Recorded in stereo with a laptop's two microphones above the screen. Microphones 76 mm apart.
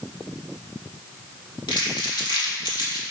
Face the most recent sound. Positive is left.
turn(degrees=85)